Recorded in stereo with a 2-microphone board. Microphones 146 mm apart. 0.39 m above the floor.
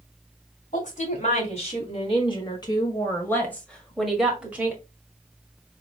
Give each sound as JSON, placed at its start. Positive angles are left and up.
{"t": 0.7, "sound": "a woman speaking", "side_deg": 55, "distance_m": 2.5}